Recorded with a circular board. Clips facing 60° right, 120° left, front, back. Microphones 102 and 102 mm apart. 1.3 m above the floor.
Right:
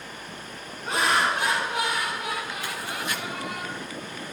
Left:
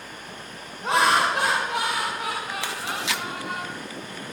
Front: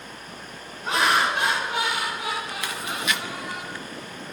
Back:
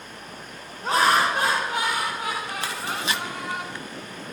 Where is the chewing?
120° left, 1.2 m.